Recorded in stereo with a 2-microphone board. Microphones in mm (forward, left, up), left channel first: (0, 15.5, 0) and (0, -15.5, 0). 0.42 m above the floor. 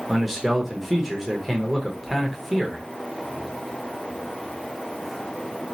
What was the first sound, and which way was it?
A man speaking, 5° right (ahead or behind).